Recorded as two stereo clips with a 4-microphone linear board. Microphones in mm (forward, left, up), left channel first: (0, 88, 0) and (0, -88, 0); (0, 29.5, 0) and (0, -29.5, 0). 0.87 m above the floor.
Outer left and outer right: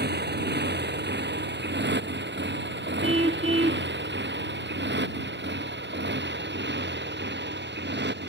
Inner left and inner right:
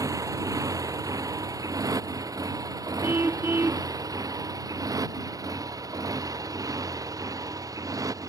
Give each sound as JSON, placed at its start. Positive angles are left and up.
{"t": 0.0, "sound": "a motorcycle", "side_deg": -70}
{"t": 3.0, "sound": "a car horn", "side_deg": -35}